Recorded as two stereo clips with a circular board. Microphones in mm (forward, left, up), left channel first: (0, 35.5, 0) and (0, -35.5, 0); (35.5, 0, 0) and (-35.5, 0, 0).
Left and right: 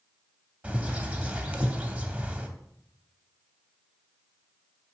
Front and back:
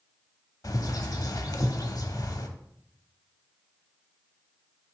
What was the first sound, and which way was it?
A bird, 20° right.